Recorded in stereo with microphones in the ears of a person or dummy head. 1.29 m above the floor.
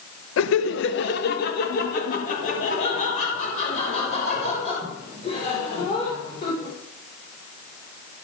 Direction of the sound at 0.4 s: 85° left.